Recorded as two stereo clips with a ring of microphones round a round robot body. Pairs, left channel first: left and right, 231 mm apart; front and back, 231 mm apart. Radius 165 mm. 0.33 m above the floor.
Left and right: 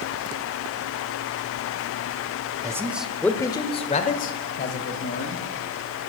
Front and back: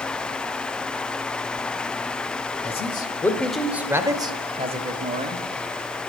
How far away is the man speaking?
About 1.2 m.